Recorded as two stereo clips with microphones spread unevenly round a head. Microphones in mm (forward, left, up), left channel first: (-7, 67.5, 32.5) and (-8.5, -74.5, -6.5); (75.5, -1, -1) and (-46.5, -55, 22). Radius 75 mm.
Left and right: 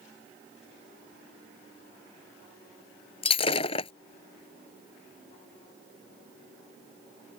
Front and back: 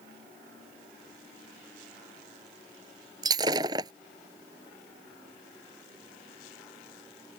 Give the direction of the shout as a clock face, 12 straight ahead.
I don't hear a shout.